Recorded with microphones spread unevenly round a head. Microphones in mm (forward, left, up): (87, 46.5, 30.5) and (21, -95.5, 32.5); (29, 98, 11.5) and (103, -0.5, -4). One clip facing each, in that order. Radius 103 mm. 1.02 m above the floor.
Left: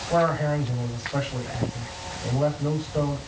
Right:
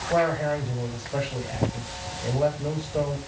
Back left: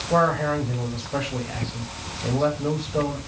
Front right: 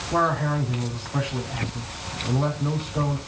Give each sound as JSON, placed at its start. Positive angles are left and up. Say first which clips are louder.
{"t": 0.1, "sound": "a man speaking", "louder": "left 1 dB, back left 3 dB", "azimuth_deg": 165, "distance_m": 6.0}